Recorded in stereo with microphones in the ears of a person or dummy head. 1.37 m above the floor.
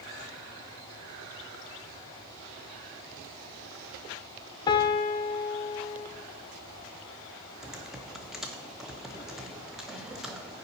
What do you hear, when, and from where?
4.7 s a piano: 20° left (ahead or behind), 0.5 m
7.6 s typing on a keyboard: centre (ahead or behind), 0.5 m